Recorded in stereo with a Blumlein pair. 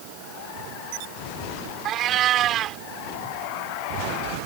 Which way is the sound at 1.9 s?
30° right.